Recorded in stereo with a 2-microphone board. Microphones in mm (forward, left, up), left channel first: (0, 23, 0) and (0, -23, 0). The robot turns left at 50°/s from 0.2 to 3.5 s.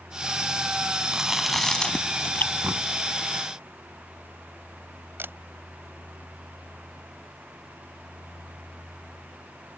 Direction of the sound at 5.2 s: 50° right (ahead or behind).